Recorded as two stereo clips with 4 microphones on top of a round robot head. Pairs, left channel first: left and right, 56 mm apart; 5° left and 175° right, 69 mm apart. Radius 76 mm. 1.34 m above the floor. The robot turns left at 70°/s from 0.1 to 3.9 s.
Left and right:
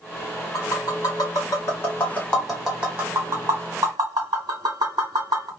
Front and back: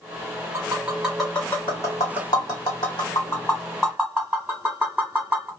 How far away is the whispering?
I don't hear whispering.